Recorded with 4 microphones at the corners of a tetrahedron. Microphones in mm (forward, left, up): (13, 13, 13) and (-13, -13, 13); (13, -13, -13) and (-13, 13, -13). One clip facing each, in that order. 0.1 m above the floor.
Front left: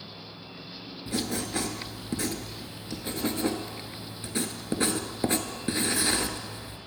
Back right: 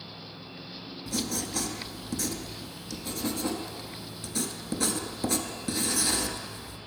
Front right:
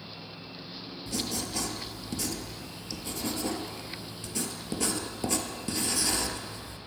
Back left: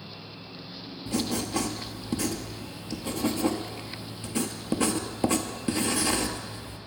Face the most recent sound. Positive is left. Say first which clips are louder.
# front left 2 dB, back left 5 dB
turn(degrees=85)